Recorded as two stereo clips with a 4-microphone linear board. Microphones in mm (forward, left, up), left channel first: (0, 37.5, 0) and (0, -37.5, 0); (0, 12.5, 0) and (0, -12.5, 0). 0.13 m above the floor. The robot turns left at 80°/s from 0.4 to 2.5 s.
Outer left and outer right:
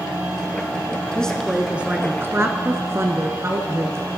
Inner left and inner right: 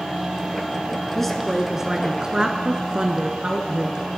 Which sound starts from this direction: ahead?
A woman speaking, at 1.1 s.